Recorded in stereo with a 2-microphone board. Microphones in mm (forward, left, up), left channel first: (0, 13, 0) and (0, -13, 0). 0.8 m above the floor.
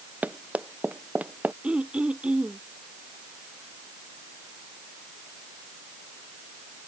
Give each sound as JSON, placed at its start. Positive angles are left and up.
{"t": 0.2, "sound": "running footsteps", "side_deg": -75}
{"t": 1.6, "sound": "throat clearing", "side_deg": -45}